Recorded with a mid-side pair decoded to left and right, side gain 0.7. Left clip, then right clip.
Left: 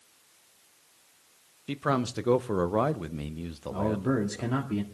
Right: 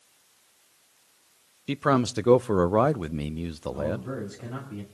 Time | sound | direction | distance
1.7 | a man speaking | 25° right | 0.5 m
3.7 | a man speaking | 45° left | 2 m